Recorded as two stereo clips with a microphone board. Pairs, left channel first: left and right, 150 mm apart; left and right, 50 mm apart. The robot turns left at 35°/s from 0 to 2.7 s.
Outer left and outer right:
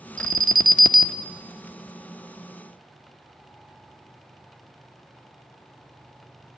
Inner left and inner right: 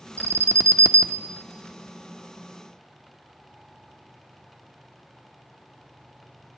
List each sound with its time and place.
0.2 s an alarm: 65° right, 0.9 m; by 1.2 s 105° right, 0.9 m